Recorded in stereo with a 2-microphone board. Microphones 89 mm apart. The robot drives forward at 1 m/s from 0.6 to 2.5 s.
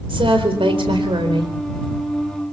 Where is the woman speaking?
75° right (ahead or behind), 4 m; by 1.5 s 60° right (ahead or behind), 4 m.